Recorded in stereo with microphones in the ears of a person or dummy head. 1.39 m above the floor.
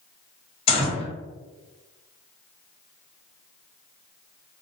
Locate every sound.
0.7 s a gunshot: 30° left (ahead or behind), 1.0 m